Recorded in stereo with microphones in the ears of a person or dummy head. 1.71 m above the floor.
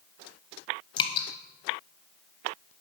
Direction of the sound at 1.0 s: 30° left (ahead or behind).